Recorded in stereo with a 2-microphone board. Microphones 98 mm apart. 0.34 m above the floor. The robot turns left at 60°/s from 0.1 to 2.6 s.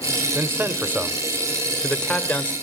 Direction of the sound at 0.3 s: 25° right (ahead or behind).